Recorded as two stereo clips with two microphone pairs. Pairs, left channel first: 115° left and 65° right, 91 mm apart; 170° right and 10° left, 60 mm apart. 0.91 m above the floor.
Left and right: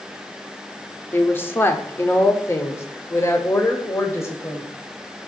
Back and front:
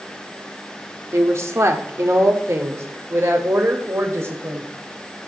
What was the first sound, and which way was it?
A woman speaking, 50° left.